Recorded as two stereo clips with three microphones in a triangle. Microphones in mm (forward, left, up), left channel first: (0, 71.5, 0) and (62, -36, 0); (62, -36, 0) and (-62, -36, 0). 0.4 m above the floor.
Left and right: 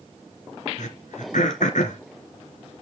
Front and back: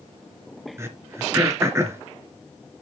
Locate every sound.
0.8 s throat clearing: 110° left, 2.5 m